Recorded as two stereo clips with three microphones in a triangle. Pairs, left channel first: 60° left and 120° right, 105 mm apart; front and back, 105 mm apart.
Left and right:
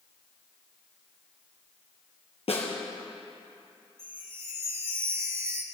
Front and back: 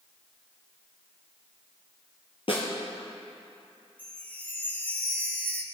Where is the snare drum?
35° left, 2.5 m.